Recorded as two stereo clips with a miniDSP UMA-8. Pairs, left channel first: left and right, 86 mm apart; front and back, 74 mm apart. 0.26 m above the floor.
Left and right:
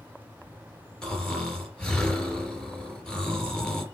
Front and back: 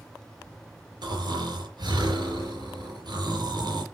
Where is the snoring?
170° left, 4.5 m.